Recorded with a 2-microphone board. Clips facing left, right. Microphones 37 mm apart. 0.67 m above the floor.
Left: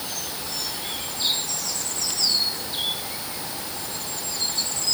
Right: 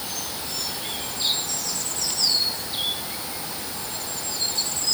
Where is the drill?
I don't hear a drill.